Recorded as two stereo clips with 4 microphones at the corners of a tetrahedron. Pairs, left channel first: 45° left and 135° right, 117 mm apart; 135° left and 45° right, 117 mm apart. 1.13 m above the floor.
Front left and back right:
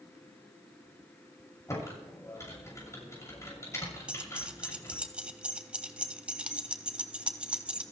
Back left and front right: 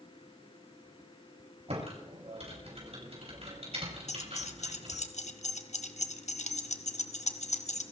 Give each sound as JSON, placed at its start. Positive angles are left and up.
{"t": 1.7, "sound": "typing on a keyboard", "azimuth_deg": -20, "distance_m": 7.0}
{"t": 4.1, "sound": "keys jangling", "azimuth_deg": 145, "distance_m": 1.0}